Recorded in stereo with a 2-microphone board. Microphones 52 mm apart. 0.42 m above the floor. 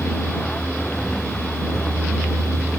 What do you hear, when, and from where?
0.0 s a vehicle: 20° left (ahead or behind); by 2.8 s 5° left (ahead or behind)